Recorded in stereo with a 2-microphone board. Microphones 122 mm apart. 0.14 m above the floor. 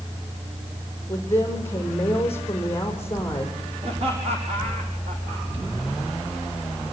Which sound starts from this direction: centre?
A woman speaking, at 1.1 s.